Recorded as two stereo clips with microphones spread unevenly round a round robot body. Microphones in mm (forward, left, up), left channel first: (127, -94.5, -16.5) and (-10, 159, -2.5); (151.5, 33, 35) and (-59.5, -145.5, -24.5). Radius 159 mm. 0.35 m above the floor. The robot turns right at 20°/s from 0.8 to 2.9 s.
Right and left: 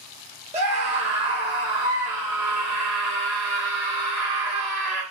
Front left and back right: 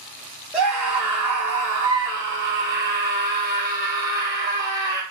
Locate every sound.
0.5 s a scream: 165° left, 0.9 m; by 5.0 s 155° right, 0.9 m